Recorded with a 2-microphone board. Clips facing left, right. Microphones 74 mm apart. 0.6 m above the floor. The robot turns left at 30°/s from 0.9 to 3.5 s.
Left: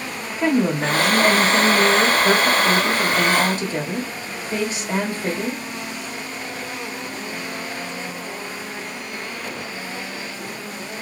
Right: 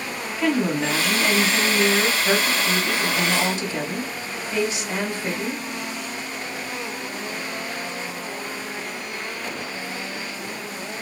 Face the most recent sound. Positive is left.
turn(degrees=65)